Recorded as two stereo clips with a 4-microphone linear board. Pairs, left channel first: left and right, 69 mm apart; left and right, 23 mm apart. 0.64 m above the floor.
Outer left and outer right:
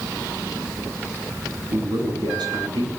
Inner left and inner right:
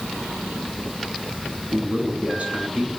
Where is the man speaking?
80° right, 6.5 m.